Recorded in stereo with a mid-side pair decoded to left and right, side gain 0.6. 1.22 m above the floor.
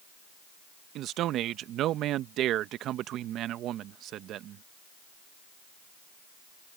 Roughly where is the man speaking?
Ahead right.